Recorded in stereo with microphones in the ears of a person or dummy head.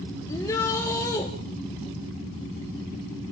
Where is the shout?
10° left (ahead or behind), 2 m.